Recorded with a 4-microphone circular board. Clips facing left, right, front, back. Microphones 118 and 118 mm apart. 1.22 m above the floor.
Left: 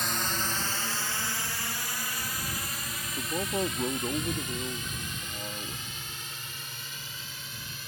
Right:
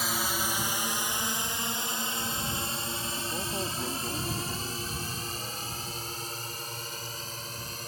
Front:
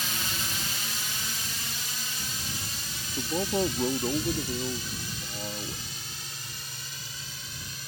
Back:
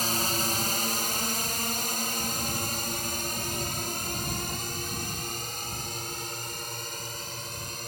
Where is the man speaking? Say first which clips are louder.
Left 7 dB, front 7 dB; 25° left.